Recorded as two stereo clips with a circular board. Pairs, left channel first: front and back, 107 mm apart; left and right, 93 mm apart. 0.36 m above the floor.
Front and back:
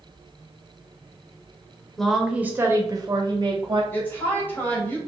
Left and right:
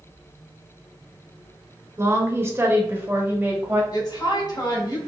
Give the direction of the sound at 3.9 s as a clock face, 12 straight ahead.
10 o'clock.